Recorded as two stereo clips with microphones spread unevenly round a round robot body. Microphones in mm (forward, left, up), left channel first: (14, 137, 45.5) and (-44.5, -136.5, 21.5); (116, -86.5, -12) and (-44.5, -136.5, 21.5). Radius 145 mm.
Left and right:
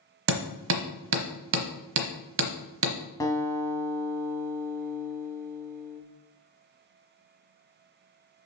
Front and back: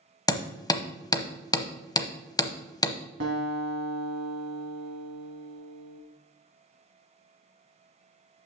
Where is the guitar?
155° left, 1.2 m.